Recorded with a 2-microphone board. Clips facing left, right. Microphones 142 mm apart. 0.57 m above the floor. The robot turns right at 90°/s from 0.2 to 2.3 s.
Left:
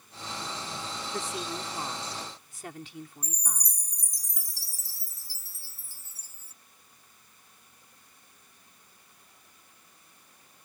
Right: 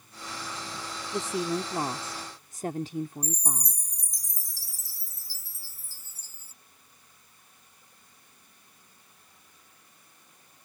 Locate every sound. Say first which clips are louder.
1.1 s a woman speaking: right 8 dB; 160° right; by 3.8 s 55° right
3.2 s a chime: right 8 dB; 65° left (ahead or behind)